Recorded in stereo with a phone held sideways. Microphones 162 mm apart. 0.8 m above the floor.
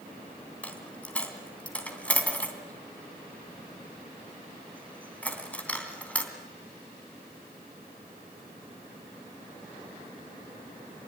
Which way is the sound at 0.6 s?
10° left (ahead or behind).